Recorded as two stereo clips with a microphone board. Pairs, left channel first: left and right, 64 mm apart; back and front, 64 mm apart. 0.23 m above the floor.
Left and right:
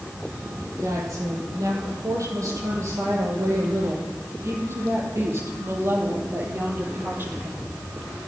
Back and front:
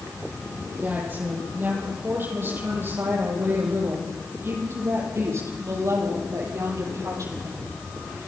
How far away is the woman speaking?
About 9 m.